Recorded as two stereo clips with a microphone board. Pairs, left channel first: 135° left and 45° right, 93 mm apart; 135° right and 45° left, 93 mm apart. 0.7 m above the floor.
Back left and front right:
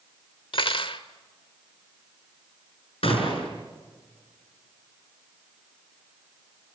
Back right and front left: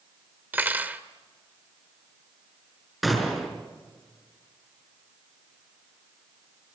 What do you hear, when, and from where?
0.5 s cutlery clinking: 115° left, 1.3 m
3.0 s a gunshot: 135° left, 5.5 m